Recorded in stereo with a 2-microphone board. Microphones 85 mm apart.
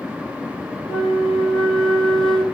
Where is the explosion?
I don't hear an explosion.